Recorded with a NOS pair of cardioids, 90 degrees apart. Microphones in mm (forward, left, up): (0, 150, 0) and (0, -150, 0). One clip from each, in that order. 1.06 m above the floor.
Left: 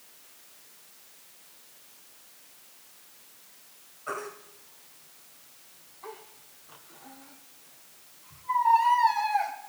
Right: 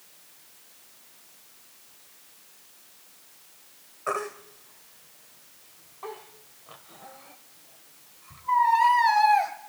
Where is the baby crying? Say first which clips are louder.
Right 6 dB; 70° right, 2 m.